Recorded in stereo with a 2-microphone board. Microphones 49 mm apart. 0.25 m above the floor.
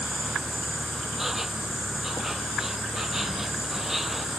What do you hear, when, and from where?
0.0 s an insect: 5° right (ahead or behind)